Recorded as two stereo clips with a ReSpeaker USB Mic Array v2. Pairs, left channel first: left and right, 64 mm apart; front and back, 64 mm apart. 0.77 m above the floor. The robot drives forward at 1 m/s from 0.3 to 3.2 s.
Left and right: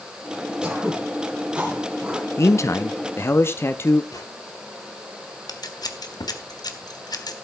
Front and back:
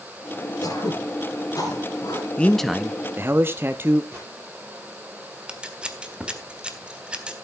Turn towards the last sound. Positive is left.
turn(degrees=105)